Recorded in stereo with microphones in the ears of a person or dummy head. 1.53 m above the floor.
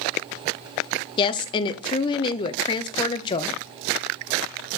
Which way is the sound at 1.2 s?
25° left (ahead or behind).